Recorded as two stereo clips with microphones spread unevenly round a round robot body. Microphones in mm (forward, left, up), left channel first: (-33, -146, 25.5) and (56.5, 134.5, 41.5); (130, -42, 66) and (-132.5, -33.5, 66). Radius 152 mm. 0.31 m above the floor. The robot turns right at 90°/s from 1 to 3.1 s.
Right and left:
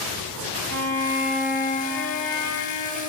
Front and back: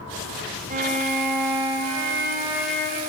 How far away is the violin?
About 1.4 m.